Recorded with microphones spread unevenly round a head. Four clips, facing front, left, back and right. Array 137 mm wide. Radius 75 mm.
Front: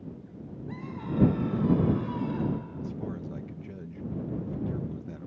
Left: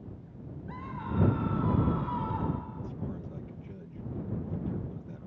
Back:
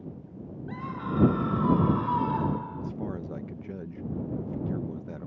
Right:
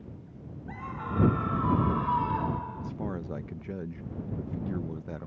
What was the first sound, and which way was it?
A scream, 125° right.